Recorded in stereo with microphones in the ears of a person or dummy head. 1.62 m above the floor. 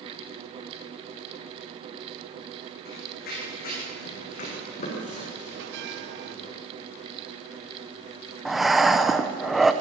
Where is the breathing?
Centre (ahead or behind), 0.9 m.